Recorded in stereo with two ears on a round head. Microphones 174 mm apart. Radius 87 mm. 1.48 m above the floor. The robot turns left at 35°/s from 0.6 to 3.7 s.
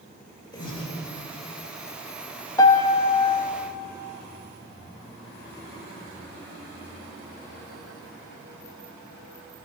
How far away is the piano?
About 0.8 m.